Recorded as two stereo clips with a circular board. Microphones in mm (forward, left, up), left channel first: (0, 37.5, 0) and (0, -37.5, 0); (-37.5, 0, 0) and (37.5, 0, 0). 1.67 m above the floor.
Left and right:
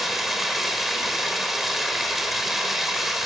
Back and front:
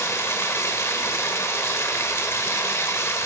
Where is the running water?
175° right, 1.6 m.